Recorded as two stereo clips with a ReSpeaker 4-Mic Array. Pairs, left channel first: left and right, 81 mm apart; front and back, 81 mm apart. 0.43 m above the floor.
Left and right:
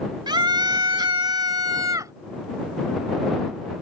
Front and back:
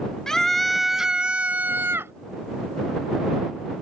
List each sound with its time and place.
0.3 s a scream: 80° right; by 2.1 s 130° right